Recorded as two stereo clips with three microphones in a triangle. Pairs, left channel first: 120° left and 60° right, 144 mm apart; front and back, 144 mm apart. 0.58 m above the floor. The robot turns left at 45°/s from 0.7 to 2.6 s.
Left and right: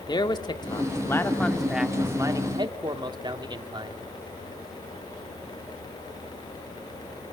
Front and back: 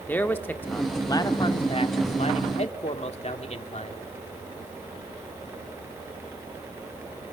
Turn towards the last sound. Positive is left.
turn(degrees=-10)